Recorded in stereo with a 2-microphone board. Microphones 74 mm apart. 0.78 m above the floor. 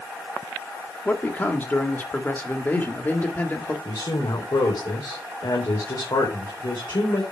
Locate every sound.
1.1 s a man speaking: 25° left (ahead or behind), 1.7 m
3.9 s a woman speaking: 75° left (ahead or behind), 3.5 m